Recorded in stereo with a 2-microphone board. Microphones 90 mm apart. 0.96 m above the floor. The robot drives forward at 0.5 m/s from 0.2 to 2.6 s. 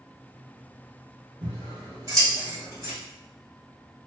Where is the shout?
No shout in this recording.